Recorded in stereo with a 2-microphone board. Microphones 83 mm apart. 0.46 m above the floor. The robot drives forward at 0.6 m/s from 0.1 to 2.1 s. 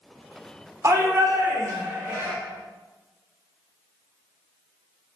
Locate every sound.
0.8 s a shout: 40° right (ahead or behind), 1.0 m; by 2.3 s 30° right (ahead or behind), 1.2 m